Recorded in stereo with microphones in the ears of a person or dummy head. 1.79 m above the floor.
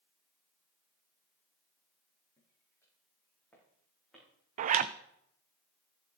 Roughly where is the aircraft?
No aircraft in this recording.